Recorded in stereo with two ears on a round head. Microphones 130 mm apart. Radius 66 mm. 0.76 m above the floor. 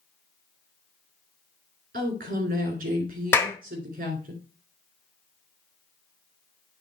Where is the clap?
15° left (ahead or behind), 1.2 m.